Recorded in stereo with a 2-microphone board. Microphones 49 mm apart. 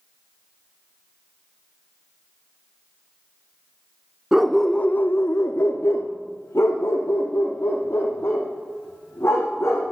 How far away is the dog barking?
About 0.7 m.